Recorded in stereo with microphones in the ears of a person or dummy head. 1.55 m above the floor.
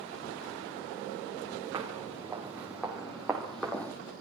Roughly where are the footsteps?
Right.